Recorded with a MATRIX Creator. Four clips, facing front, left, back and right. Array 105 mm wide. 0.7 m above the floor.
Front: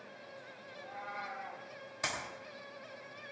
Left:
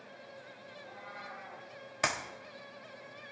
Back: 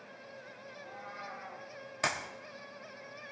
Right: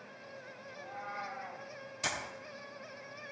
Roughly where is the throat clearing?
I don't hear throat clearing.